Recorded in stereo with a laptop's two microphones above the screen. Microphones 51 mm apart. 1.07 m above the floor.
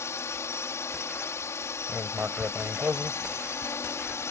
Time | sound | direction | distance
0.0 | a drone | 65° left (ahead or behind) | ?
1.9 | writing | 25° right (ahead or behind) | ?